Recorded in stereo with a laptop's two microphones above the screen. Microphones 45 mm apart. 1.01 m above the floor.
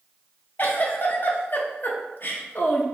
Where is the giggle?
45° left (ahead or behind), 0.5 m.